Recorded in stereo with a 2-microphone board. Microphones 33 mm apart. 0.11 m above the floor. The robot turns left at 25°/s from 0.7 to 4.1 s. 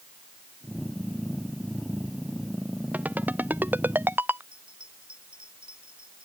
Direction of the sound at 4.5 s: 35° right (ahead or behind).